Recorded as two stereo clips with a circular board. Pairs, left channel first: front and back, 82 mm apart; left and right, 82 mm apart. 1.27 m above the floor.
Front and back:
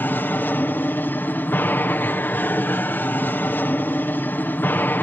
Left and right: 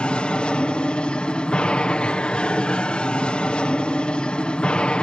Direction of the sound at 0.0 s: 30° left.